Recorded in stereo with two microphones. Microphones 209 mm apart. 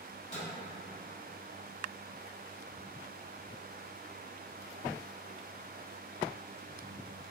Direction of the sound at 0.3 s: 30° left (ahead or behind).